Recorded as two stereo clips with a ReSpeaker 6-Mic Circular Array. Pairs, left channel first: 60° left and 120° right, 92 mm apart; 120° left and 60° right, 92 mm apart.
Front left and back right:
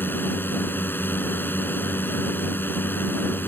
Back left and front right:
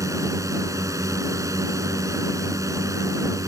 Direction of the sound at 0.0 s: 5° right.